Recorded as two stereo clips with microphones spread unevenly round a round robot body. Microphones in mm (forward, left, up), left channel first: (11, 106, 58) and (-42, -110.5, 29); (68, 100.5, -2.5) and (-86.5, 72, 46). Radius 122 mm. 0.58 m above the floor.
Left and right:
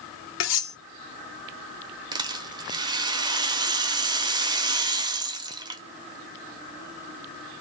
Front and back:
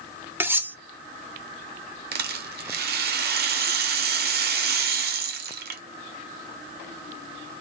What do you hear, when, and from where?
0.4 s cutlery clinking: 105° left, 0.7 m
2.1 s a rattle: 175° right, 0.6 m